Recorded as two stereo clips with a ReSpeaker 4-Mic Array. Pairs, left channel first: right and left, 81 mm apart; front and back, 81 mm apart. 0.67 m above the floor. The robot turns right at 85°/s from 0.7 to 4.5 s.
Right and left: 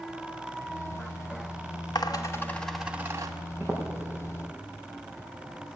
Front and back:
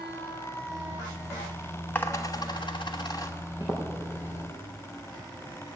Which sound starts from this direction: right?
A dropped coin, at 1.9 s.